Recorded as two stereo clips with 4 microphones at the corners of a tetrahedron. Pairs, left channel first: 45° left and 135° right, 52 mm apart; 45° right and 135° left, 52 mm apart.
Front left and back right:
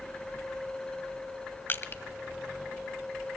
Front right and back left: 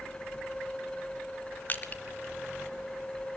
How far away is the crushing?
About 1.1 m.